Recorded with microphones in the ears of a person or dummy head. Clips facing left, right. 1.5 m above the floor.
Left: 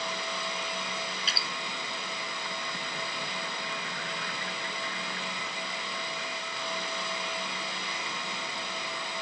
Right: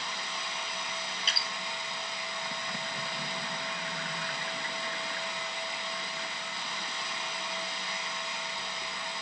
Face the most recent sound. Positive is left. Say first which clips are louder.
# left 2 dB
turn(degrees=-75)  # may be behind; listen again after turning